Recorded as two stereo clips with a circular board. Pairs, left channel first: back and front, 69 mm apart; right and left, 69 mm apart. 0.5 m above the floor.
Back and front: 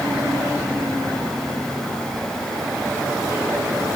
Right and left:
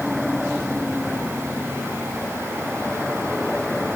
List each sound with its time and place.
Only background noise.